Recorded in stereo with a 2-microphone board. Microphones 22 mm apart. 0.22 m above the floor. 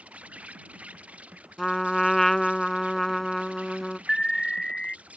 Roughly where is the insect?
Right.